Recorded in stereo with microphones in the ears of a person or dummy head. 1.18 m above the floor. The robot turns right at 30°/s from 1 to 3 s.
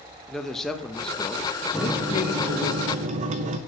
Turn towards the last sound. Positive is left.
turn(degrees=-145)